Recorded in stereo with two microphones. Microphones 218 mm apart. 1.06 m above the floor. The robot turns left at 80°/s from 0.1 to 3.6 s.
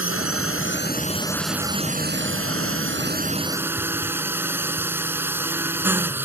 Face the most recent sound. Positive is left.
turn(degrees=-170)